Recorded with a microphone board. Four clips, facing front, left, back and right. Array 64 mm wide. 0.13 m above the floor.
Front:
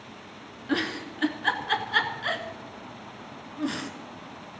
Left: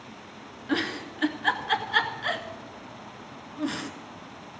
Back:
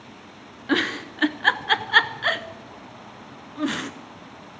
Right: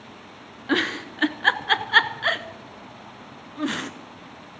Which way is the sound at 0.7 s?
135° right.